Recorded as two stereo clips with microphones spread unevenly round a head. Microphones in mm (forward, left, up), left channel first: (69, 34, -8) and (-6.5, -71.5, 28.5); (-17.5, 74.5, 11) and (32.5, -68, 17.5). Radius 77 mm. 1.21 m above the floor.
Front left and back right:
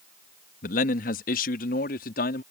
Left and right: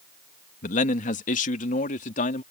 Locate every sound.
0.6 s a man speaking: 70° left